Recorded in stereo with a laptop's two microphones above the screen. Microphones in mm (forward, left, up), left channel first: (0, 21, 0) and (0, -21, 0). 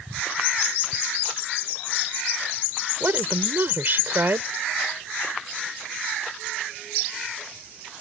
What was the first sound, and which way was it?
A woman speaking, 50° right (ahead or behind).